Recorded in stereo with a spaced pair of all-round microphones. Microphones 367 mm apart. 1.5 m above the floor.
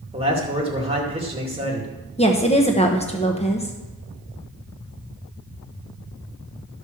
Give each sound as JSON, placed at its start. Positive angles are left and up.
{"t": 0.1, "sound": "a man speaking", "side_deg": -15, "distance_m": 2.5}
{"t": 2.2, "sound": "a woman speaking", "side_deg": 15, "distance_m": 1.0}